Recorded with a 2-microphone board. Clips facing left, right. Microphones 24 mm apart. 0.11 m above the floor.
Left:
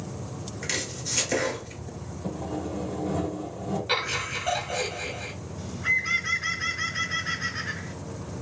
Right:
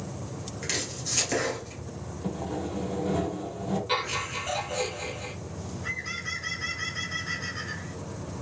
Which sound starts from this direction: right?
Sawing, at 2.2 s.